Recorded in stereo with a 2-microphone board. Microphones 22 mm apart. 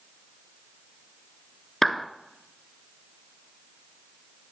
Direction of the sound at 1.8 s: 15° left (ahead or behind).